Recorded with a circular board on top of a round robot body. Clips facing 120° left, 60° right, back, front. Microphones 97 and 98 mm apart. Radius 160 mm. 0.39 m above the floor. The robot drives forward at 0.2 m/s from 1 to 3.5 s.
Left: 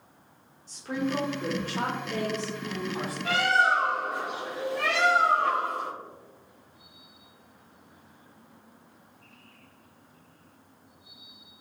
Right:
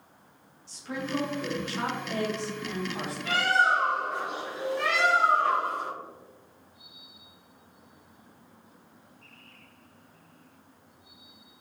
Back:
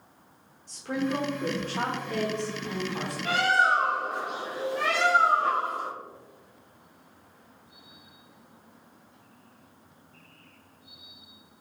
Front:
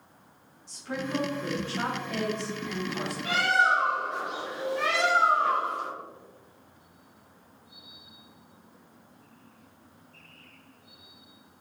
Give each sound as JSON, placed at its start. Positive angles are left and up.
{"t": 0.7, "sound": "a woman speaking", "azimuth_deg": 155, "distance_m": 1.6}
{"t": 3.2, "sound": "a bird", "azimuth_deg": 130, "distance_m": 2.0}